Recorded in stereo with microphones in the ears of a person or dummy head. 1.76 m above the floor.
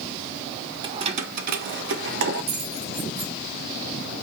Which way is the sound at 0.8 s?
25° right (ahead or behind).